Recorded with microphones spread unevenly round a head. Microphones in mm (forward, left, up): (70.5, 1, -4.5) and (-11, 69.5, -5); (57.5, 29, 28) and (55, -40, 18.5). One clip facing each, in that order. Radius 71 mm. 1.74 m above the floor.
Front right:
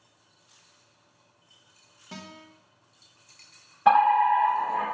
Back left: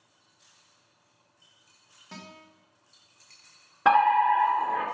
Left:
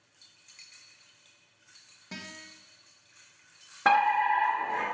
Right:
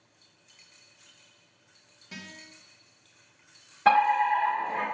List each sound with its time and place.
2.1 s a guitar: 40° left, 1.1 m
3.9 s a fire alarm: 155° left, 1.8 m